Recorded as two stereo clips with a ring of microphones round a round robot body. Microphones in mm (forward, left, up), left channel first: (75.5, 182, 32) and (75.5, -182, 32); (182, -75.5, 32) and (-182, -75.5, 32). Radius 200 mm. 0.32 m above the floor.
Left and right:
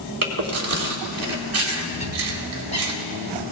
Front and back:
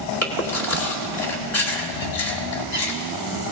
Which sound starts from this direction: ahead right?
Chewing, at 0.2 s.